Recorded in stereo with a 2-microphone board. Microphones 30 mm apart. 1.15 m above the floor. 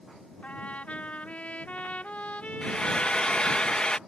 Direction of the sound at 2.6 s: 35° left (ahead or behind).